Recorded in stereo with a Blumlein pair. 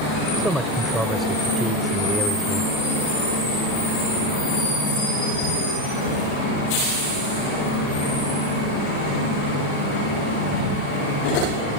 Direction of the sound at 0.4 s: 10° right.